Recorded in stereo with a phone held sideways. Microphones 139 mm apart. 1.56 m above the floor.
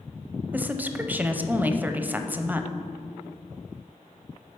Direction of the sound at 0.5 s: 10° right (ahead or behind).